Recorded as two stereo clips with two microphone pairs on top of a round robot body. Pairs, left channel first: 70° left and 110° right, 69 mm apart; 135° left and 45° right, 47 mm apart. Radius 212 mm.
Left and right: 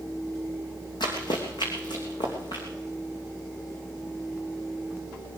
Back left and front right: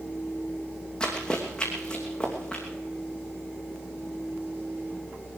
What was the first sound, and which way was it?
Running footsteps, 60° left.